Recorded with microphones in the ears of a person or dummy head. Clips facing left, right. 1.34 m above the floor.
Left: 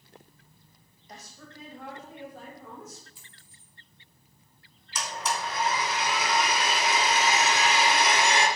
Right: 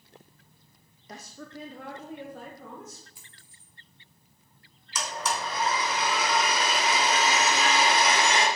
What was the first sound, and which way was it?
A woman speaking, 55° right (ahead or behind).